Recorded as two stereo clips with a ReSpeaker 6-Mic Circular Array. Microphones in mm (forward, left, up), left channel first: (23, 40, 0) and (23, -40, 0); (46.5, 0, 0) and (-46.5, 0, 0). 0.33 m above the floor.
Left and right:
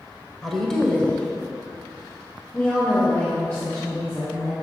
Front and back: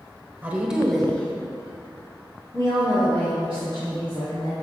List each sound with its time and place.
0.4 s a woman speaking: 170° left, 1.0 m; by 4.5 s 25° left, 3 m